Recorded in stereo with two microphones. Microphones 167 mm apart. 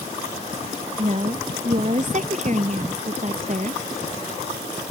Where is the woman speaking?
45° right (ahead or behind).